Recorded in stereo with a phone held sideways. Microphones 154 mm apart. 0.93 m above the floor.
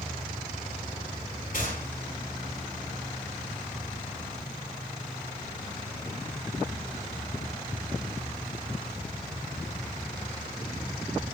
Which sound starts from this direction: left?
A gunshot, at 1.5 s.